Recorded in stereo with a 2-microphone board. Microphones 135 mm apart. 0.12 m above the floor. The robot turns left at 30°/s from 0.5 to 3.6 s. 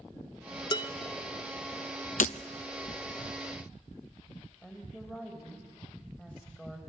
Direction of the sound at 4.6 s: 10° left (ahead or behind).